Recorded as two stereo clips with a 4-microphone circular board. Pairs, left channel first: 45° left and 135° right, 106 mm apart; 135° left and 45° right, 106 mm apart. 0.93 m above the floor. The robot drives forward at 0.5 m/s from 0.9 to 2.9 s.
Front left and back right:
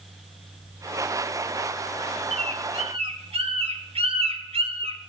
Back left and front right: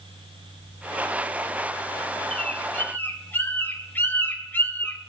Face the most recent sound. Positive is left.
turn(degrees=-155)